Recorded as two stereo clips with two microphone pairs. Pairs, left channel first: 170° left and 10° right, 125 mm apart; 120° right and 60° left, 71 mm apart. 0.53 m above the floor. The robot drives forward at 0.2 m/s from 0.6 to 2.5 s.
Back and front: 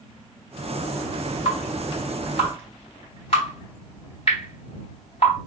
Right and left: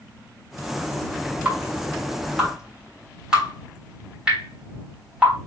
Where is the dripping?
135° left, 3 m; by 5.4 s 140° left, 3 m.